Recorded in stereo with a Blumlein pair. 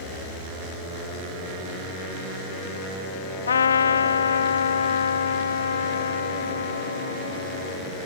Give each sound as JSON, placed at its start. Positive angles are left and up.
{"t": 3.5, "sound": "a trumpet", "azimuth_deg": 70}